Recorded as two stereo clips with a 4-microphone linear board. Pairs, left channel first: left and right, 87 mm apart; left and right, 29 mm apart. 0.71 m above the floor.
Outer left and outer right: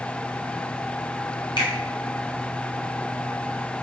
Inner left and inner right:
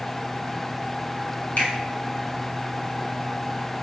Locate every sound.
1.6 s a finger snap: 65° left (ahead or behind), 3 m